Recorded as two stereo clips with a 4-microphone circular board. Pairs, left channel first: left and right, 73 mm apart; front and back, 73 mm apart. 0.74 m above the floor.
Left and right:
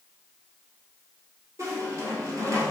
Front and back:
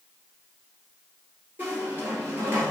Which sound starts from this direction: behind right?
A squeak, at 1.6 s.